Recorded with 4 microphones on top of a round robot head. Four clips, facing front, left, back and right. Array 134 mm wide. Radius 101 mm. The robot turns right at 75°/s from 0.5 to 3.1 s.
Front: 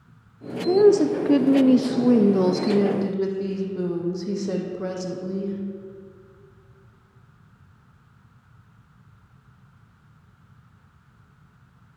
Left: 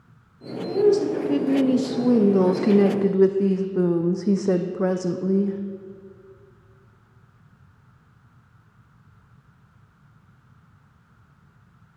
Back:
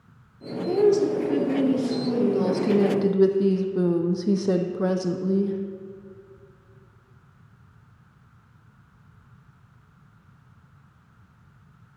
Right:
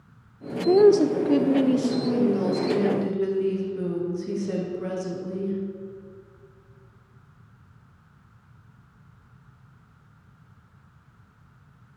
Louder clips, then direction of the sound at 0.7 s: Right 3 dB, front 4 dB; 70° right.